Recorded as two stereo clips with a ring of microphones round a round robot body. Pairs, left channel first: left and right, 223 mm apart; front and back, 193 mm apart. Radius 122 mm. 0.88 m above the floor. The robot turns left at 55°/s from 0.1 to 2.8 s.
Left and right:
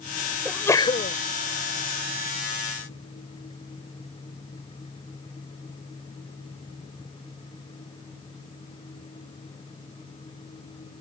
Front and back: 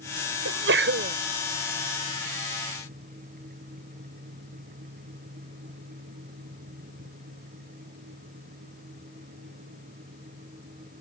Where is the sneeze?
Straight behind; by 1.2 s 140° left.